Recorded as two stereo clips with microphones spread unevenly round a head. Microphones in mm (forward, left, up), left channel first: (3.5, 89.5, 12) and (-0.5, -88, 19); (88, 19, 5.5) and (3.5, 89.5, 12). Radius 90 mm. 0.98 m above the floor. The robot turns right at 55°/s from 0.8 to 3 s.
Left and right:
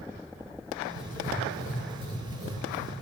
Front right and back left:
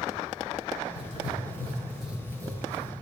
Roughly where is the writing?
Ahead.